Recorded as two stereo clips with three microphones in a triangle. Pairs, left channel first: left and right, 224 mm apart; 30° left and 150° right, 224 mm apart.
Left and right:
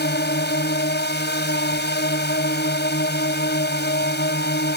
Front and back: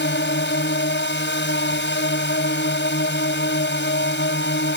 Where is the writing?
No writing in this recording.